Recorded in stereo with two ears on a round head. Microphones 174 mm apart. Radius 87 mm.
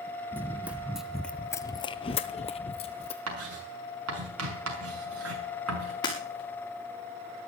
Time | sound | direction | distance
0.3 | running footsteps | 10° right (ahead or behind) | 1.8 m
3.3 | writing | 85° right | 5.5 m
6.0 | breaking glass | 25° left (ahead or behind) | 7 m